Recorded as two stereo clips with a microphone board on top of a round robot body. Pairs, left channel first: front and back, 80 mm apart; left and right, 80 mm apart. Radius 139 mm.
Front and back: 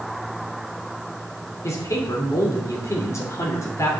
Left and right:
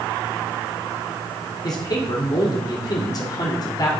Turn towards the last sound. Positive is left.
turn(degrees=55)